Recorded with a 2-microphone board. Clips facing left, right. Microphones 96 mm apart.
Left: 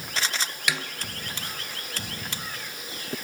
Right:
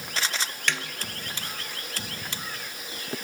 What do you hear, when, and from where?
0.7 s a snare drum: 10° left (ahead or behind), 1.2 m